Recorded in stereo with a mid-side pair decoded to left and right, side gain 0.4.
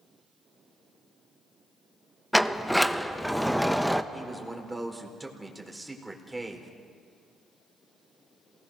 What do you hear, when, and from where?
2.3 s a sliding door: 5° right, 1.0 m
4.1 s a man speaking: 15° right, 4.5 m